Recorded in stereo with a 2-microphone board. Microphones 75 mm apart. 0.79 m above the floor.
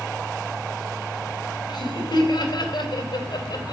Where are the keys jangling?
No keys jangling in this recording.